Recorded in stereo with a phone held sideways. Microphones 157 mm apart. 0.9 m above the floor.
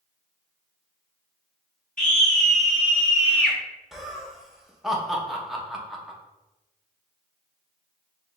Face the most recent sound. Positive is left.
turn(degrees=0)  # may be behind; listen again after turning